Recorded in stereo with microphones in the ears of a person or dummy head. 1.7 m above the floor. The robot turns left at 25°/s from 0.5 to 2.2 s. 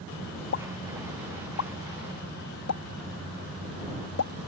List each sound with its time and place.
0.5 s a pop: 55° left (ahead or behind); by 4.3 s 80° left